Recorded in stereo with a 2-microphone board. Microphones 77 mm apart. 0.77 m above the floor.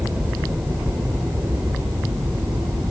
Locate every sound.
0.0 s a helicopter: 20° right (ahead or behind); by 2.9 s 45° right (ahead or behind)